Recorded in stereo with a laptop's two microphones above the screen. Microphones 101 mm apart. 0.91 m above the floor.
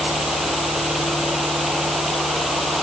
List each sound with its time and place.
0.0 s a fan: centre (ahead or behind)